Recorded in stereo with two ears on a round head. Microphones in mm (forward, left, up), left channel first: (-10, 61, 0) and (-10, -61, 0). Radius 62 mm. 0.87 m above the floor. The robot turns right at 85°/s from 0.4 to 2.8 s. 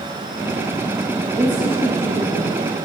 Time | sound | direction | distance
1.3 | a woman speaking | 150° right | 1.1 m